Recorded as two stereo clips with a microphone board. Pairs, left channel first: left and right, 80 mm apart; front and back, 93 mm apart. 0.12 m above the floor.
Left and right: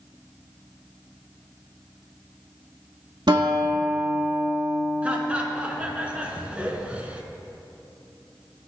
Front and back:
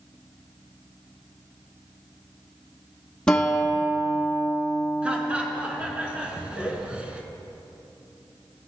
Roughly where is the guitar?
Right.